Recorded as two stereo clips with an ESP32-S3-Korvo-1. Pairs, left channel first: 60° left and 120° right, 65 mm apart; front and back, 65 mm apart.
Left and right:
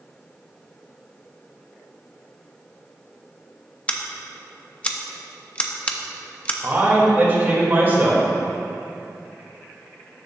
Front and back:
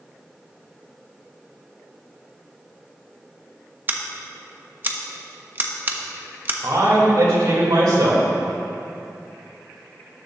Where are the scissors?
130° left, 0.7 m.